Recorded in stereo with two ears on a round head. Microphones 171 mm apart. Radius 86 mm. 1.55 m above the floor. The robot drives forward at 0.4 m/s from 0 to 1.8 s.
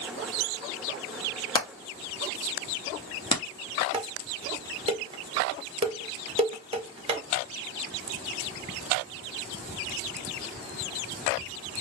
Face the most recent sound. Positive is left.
turn(degrees=-30)  # may be behind; listen again after turning